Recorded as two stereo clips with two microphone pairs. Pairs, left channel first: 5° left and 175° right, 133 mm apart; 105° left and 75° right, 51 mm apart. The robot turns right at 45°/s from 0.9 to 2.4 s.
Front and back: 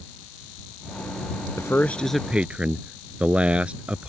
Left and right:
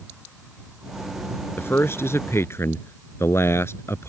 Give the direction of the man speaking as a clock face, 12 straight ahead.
10 o'clock.